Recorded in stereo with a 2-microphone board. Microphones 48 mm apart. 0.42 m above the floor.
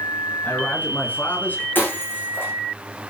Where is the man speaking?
40° left (ahead or behind), 6.5 m.